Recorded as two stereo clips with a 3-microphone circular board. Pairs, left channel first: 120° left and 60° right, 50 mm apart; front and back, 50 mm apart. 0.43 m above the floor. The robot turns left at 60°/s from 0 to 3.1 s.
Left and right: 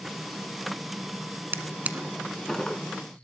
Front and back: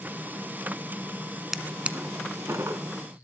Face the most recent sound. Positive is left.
turn(degrees=170)